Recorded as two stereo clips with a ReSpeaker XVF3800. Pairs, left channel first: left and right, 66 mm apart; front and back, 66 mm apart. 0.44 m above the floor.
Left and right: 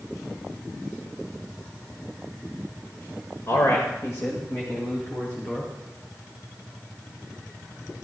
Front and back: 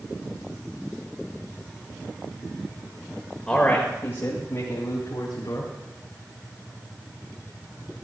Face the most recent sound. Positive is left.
turn(degrees=30)